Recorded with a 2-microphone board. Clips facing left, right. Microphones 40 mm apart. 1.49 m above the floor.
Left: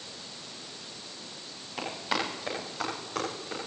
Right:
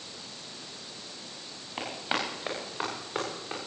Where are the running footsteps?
25° right (ahead or behind), 10 m; by 3.6 s 30° right (ahead or behind), 10.5 m.